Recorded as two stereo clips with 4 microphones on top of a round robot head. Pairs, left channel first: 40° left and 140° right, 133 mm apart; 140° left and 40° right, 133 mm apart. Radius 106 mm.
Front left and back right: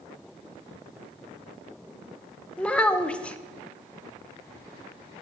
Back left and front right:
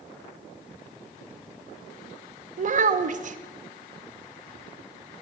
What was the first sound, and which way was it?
A child speaking, 40° right.